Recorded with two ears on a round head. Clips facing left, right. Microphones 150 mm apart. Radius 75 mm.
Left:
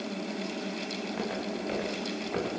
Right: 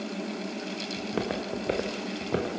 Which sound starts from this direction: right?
Footsteps, at 1.0 s.